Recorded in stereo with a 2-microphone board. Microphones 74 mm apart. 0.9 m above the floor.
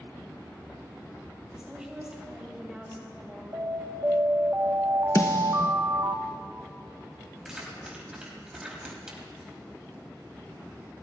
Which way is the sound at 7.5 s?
10° right (ahead or behind).